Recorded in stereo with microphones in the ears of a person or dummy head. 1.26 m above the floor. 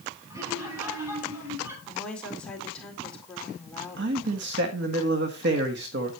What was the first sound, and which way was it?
Laughter, 25° right (ahead or behind).